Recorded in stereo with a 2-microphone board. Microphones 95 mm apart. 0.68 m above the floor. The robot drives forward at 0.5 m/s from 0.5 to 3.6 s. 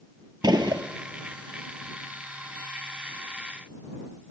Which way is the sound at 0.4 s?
50° right (ahead or behind).